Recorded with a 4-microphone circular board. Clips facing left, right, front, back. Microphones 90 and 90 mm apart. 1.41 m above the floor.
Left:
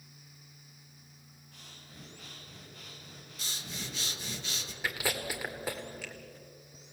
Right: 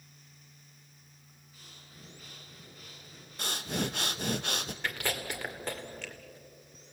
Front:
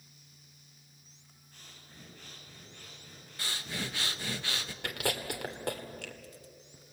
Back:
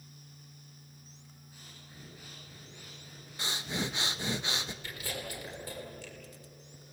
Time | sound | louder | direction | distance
1.5 | breathing | left 2 dB, even | 100° left | 7.5 m
3.4 | breathing | right 11 dB, back 3 dB | 110° right | 1.0 m
4.8 | chewing | left 2 dB, front 6 dB | 5° left | 2 m